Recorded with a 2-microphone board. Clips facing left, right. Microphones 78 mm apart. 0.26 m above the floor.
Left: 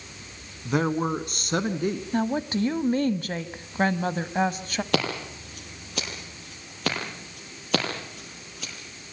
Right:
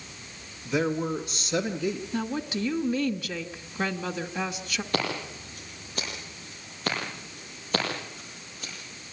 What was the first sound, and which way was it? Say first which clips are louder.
A man speaking: left 2 dB; 55° left (ahead or behind).